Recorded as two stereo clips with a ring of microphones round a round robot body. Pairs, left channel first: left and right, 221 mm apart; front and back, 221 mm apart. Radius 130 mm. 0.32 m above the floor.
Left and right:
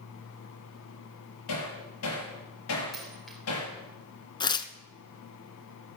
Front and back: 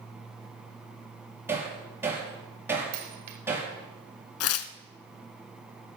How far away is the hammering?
About 5.5 m.